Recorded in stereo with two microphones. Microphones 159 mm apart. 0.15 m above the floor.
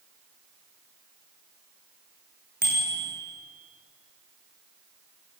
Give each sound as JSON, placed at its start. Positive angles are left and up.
{"t": 2.6, "sound": "a bicycle bell", "side_deg": 75, "distance_m": 7.0}